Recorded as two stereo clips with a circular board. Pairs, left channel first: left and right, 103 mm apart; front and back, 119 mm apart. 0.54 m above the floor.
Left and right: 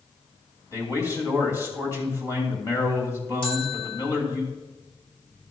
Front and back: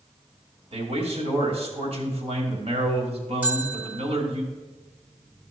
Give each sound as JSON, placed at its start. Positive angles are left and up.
{"t": 0.7, "sound": "a man speaking", "azimuth_deg": 150, "distance_m": 2.5}
{"t": 3.4, "sound": "a bell", "azimuth_deg": 105, "distance_m": 2.0}